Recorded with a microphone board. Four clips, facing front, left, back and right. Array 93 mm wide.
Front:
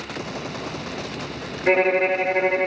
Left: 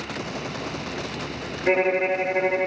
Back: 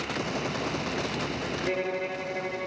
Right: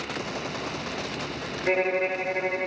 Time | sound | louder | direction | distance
1.7 | a violin | left 4 dB, front 14 dB | 15° left | 0.7 m